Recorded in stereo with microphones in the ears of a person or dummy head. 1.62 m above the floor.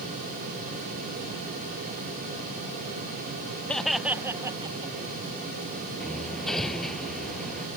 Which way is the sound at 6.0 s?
5° left (ahead or behind).